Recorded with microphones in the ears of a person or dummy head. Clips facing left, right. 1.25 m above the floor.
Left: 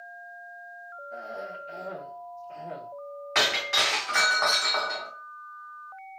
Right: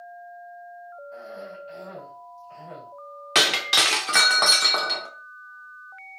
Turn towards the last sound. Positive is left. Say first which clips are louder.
# right 3 dB
turn(degrees=-45)  # may be behind; listen again after turning